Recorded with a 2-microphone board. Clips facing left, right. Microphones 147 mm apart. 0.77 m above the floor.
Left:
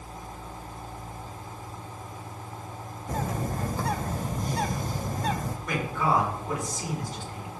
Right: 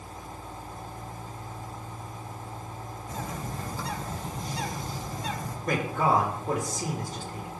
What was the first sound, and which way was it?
A bird, 55° left (ahead or behind).